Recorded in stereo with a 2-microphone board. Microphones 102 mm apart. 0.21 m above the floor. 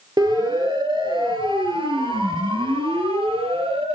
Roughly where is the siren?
Right.